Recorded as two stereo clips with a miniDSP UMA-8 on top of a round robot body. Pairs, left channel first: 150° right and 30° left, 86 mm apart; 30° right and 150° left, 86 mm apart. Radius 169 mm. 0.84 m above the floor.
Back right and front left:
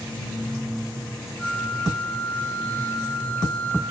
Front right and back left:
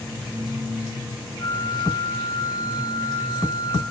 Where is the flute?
75° right, 8 m.